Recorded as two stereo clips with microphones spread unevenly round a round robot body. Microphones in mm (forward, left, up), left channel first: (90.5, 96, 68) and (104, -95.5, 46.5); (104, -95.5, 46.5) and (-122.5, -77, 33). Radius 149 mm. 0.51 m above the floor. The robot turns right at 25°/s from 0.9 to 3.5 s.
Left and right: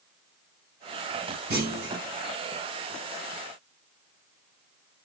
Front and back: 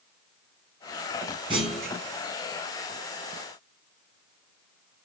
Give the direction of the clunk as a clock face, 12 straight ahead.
4 o'clock.